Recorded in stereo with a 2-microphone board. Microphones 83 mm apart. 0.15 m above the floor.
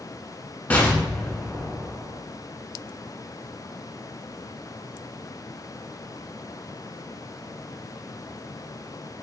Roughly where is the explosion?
Centre.